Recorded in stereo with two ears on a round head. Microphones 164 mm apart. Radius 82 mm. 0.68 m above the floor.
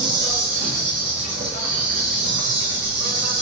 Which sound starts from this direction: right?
An insect, at 0.0 s.